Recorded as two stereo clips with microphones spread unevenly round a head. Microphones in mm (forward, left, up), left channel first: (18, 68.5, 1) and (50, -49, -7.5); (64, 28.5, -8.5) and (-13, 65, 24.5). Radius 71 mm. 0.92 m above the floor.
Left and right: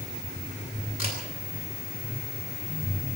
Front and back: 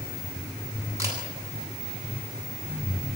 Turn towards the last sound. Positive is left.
turn(degrees=110)